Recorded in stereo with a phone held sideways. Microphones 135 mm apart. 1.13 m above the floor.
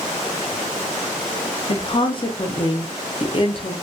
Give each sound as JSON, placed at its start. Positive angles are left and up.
{"t": 1.7, "sound": "a woman speaking", "side_deg": 40, "distance_m": 0.5}